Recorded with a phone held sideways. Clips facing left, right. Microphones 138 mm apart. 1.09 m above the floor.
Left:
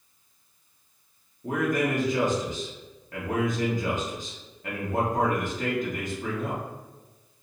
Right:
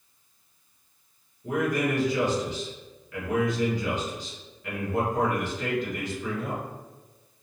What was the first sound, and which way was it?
A man speaking, 50° left (ahead or behind).